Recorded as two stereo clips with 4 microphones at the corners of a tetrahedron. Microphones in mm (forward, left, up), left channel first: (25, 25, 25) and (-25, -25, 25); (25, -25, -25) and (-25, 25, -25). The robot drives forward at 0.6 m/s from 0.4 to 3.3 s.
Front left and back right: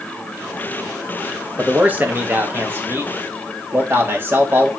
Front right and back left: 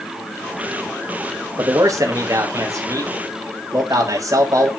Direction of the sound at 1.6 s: 160° left.